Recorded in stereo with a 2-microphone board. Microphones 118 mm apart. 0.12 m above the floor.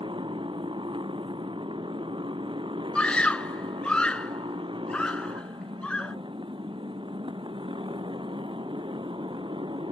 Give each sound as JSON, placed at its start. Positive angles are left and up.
{"t": 0.0, "sound": "a motorcycle", "side_deg": -45}
{"t": 3.0, "sound": "a scream", "side_deg": 10}